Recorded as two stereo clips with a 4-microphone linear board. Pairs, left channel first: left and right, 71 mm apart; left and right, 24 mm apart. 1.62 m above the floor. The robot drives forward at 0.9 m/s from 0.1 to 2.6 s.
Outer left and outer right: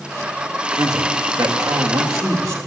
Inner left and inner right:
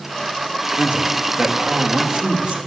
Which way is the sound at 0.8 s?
65° right (ahead or behind).